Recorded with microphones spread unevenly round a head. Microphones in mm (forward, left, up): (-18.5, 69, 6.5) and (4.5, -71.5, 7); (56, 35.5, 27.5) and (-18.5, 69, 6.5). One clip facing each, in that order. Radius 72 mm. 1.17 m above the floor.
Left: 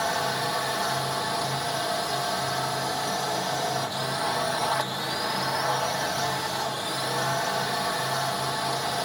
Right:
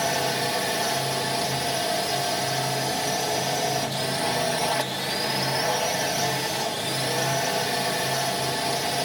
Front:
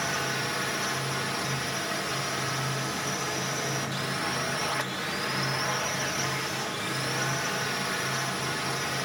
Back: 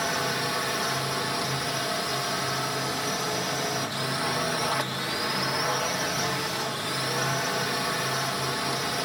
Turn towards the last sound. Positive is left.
turn(degrees=-140)